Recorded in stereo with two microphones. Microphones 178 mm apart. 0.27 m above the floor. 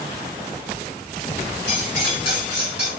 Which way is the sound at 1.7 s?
65° left (ahead or behind).